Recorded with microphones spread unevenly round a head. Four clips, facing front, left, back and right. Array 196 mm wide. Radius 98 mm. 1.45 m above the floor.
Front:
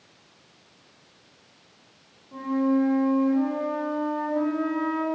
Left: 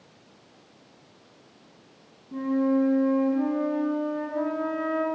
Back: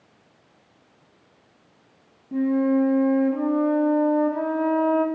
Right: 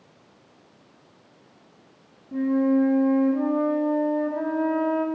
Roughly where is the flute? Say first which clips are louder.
Right 3 dB, back 3 dB; behind.